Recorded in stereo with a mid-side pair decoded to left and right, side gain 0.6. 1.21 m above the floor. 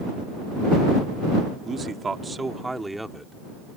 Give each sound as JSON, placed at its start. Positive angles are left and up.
{"t": 1.6, "sound": "a man speaking", "azimuth_deg": -35}